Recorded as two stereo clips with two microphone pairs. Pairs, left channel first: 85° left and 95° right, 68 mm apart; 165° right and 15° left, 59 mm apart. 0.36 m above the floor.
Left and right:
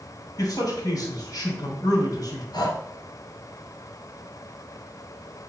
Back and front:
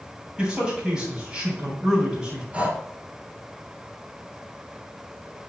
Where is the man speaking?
90° left, 2.5 m.